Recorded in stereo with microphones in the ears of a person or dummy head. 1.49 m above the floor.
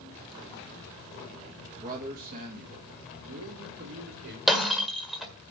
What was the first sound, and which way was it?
A man speaking, 40° right (ahead or behind).